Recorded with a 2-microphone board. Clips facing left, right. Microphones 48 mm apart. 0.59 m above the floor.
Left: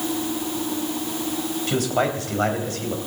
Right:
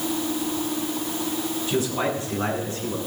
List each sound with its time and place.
1.7 s a man speaking: 70° left (ahead or behind), 4 m